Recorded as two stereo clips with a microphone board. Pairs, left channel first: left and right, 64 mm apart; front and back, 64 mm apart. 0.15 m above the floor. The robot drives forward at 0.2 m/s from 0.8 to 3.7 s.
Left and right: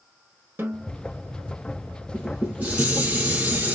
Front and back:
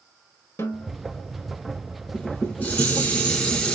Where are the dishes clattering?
35° right, 1.1 m; by 3.8 s 60° right, 0.9 m.